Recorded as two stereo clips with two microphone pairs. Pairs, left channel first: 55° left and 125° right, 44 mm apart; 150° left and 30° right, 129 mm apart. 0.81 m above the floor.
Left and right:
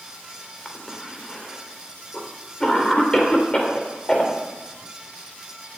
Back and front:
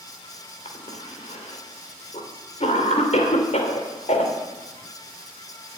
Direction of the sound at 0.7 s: 130° left.